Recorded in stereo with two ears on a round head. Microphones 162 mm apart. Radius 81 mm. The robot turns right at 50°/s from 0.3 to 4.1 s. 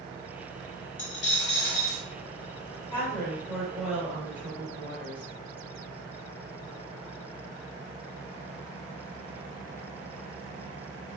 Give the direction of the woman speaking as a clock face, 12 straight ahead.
7 o'clock.